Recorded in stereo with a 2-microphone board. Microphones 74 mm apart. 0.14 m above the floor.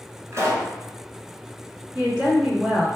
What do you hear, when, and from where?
0.3 s a pop: 40° right (ahead or behind), 0.9 m
1.9 s a woman speaking: 10° right (ahead or behind), 1.1 m